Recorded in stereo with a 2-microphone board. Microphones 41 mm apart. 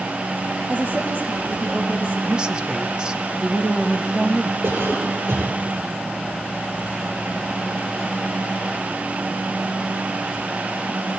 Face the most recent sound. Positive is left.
turn(degrees=-80)